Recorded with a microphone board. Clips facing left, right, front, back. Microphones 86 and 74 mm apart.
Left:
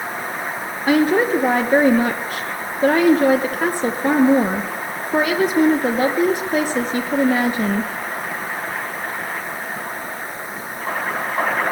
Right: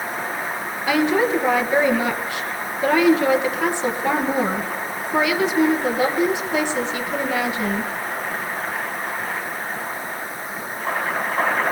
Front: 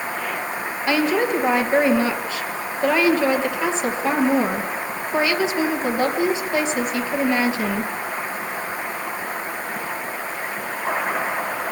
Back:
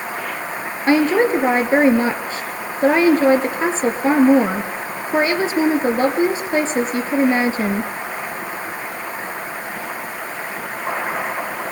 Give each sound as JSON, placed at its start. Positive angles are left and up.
{"t": 0.9, "sound": "a woman speaking", "azimuth_deg": 130, "distance_m": 2.5}